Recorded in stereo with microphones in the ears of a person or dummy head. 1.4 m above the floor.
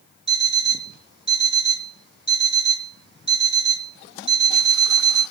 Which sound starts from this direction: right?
An alarm clock, at 0.3 s.